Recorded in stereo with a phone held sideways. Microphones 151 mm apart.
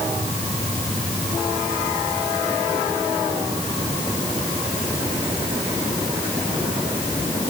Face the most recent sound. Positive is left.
No sound to turn to.